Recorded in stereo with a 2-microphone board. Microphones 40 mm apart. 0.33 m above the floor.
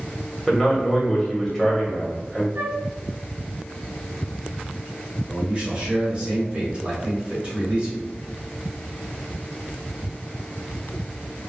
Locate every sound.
0.5 s a man speaking: centre (ahead or behind), 1.2 m
2.5 s a flute: 75° right (ahead or behind), 0.6 m
5.3 s a man speaking: 35° right (ahead or behind), 1.7 m